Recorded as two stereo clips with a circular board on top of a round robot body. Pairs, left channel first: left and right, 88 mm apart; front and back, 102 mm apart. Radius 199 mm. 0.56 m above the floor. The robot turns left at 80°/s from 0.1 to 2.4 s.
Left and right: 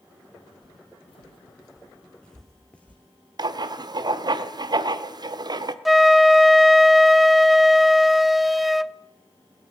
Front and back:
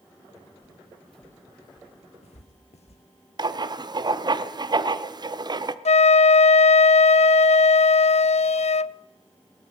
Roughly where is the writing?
Behind right.